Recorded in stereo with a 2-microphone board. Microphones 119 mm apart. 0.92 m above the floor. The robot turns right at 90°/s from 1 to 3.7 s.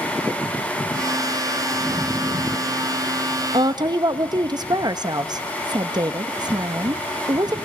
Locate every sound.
3.5 s a woman speaking: 45° right (ahead or behind), 1.0 m; by 7.5 s 35° right (ahead or behind), 1.0 m